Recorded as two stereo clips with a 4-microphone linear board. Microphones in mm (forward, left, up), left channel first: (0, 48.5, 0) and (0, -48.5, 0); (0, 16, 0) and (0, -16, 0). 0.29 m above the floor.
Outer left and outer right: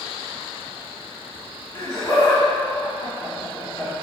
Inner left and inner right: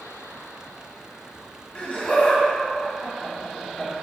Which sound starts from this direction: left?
Laughter, at 1.8 s.